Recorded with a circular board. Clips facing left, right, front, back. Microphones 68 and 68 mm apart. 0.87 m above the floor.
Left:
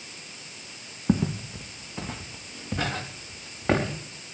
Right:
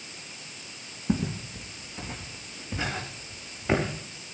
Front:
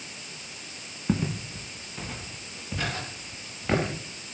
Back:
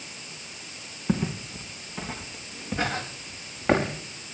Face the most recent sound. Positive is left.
turn(degrees=125)